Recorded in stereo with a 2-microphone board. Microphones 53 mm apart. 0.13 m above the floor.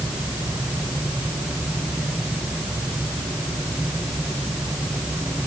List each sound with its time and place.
Only background noise.